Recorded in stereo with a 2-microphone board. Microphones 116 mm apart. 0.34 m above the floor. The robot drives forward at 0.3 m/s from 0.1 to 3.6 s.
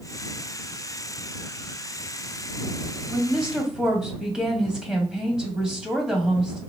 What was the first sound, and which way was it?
A woman speaking, 5° right (ahead or behind).